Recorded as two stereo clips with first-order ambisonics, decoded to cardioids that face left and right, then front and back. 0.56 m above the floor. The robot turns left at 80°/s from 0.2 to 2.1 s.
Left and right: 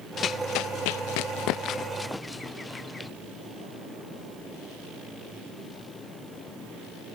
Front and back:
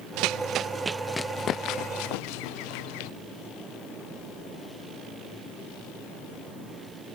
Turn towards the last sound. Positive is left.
turn(degrees=10)